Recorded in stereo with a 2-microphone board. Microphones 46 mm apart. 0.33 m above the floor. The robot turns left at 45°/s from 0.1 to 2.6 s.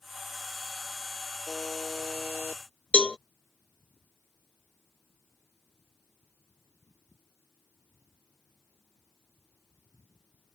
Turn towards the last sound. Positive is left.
turn(degrees=20)  # may be behind; listen again after turning